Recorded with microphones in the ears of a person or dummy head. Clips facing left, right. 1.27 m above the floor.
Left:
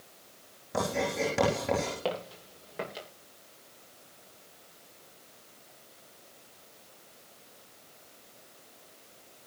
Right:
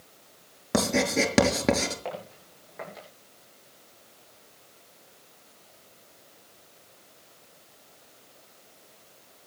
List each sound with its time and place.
0.7 s writing: 75° right (ahead or behind), 5.5 m
2.0 s footsteps: 45° left (ahead or behind), 9.5 m; by 3.1 s 40° left (ahead or behind), 10 m